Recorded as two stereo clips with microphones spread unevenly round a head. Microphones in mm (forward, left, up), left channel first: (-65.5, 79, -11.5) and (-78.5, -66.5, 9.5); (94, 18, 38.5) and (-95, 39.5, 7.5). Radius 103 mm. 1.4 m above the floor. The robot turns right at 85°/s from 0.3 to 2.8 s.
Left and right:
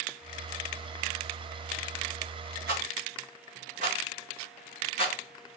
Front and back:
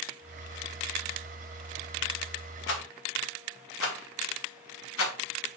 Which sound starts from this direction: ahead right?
A rattle, at 2.7 s.